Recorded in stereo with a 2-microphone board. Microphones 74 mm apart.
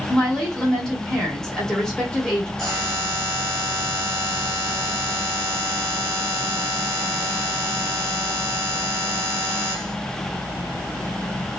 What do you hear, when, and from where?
0.1 s a woman speaking: 5° left (ahead or behind), 1.3 m
2.6 s a buzzer: 5° left (ahead or behind), 1.3 m